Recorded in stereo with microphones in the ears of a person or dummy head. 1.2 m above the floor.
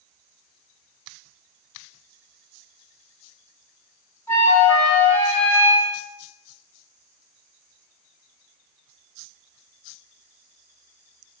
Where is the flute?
15° left (ahead or behind), 1.9 m.